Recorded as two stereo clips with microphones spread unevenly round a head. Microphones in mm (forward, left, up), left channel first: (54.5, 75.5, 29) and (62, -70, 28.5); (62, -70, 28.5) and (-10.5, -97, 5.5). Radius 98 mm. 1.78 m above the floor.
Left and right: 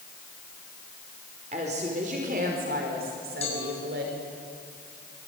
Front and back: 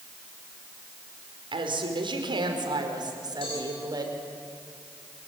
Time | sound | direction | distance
1.5 | a woman speaking | 145° right | 4.5 m
3.4 | a cowbell | 50° left | 7 m